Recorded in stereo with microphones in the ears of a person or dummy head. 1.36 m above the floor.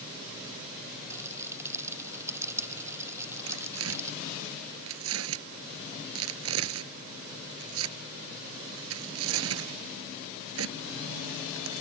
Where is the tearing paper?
80° right.